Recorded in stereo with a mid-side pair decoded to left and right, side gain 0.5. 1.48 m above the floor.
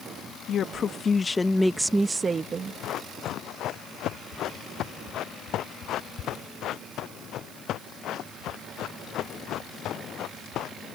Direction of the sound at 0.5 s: 55° left.